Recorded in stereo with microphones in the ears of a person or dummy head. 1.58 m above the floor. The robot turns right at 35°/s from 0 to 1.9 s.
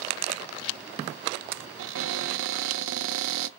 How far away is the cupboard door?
About 0.5 m.